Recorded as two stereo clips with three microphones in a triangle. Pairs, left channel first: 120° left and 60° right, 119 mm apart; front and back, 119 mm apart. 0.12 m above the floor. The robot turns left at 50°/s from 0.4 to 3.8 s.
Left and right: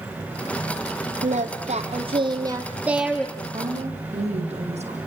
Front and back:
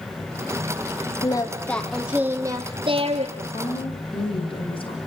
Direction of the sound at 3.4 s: 20° right.